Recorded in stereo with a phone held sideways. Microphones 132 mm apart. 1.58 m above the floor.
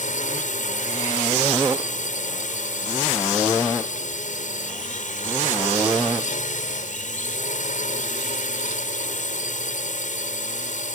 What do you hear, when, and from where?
0.0 s a drone: 70° left (ahead or behind)